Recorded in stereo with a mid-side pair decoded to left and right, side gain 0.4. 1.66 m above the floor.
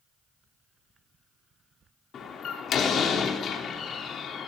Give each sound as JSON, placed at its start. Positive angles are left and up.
{"t": 2.1, "sound": "a door slam", "azimuth_deg": 65, "distance_m": 3.0}